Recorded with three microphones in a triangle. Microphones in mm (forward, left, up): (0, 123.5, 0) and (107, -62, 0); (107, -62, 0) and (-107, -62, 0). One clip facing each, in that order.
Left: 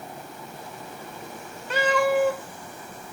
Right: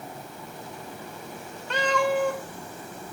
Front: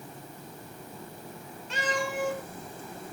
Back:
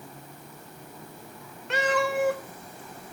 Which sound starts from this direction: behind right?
A cat meowing, at 1.7 s.